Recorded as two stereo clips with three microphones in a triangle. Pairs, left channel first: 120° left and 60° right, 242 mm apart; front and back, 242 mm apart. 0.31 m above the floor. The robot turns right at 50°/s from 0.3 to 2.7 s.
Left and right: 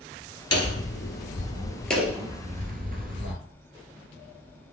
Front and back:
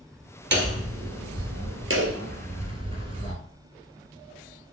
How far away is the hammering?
About 1.8 m.